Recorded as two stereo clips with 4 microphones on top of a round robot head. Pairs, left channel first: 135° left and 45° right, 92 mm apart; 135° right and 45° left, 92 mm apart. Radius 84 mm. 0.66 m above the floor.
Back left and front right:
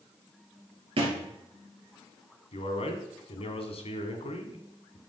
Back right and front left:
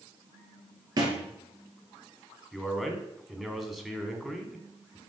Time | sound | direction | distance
1.0 | a thud | 5° right | 3 m
2.5 | a man speaking | 130° left | 2.5 m